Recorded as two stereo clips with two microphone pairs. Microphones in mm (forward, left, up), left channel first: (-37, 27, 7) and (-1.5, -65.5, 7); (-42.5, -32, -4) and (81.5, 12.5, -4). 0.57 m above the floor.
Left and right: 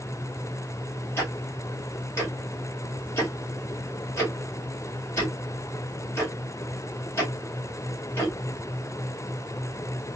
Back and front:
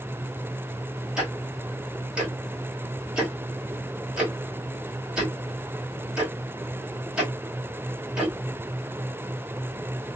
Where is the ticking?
95° left, 1.4 m.